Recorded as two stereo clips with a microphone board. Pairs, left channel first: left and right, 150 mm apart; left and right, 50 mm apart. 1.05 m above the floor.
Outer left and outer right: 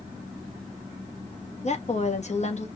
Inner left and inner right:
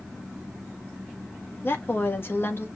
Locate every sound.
1.6 s a woman speaking: 50° left (ahead or behind), 1.4 m